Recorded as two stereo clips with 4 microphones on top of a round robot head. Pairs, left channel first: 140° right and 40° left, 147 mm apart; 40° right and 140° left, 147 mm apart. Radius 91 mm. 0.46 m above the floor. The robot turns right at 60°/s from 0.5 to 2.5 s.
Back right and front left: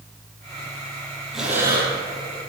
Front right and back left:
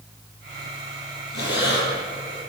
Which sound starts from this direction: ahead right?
Breathing, at 1.3 s.